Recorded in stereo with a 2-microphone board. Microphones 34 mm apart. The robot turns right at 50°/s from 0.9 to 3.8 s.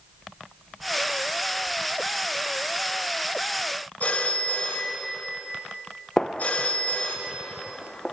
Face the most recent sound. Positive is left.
turn(degrees=20)  # may be behind; listen again after turning